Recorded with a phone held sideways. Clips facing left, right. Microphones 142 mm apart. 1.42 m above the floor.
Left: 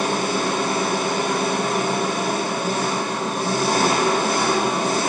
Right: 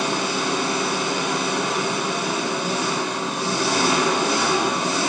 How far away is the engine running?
About 1.5 m.